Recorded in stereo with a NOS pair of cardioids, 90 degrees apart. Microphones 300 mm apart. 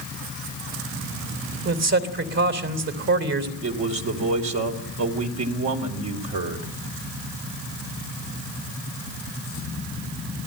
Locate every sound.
1.6 s a man speaking: 60° right, 3.5 m
3.6 s a man speaking: 70° right, 3 m